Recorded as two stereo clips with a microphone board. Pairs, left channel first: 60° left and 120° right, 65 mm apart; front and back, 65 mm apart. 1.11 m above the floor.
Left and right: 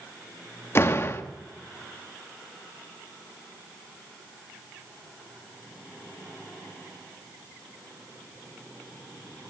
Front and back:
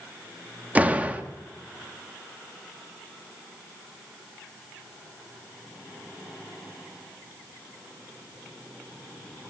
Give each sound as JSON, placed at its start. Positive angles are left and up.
{"t": 0.8, "sound": "a door slam", "azimuth_deg": 115, "distance_m": 1.6}